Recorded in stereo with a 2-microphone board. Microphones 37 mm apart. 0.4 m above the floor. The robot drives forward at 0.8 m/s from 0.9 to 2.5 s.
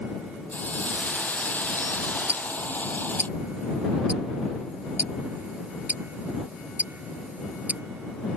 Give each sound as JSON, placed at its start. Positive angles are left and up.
{"t": 0.5, "sound": "a hiss", "side_deg": 50}
{"t": 2.3, "sound": "ticking", "side_deg": -45}